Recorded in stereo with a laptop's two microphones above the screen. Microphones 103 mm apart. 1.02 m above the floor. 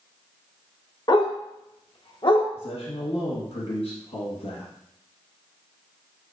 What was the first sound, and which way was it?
A dog barking, 40° left (ahead or behind).